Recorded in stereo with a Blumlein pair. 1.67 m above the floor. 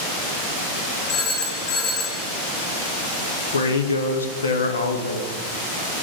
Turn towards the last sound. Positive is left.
turn(degrees=70)